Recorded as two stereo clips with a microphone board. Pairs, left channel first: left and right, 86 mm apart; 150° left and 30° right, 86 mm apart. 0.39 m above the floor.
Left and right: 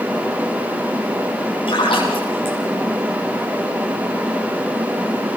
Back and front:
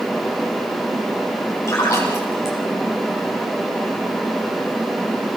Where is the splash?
90° left, 6 m.